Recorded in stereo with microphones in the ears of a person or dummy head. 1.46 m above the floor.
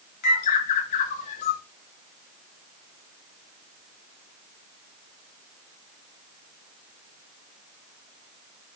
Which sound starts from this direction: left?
A bird, at 0.2 s.